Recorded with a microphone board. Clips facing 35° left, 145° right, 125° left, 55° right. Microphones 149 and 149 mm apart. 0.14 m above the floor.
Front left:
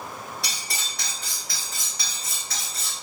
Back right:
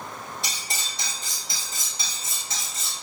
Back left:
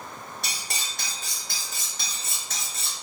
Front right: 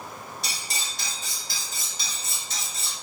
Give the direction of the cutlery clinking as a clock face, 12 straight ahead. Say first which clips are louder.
Even, even; 7 o'clock.